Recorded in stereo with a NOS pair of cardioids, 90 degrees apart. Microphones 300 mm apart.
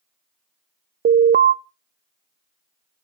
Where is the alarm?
35° right, 0.6 m.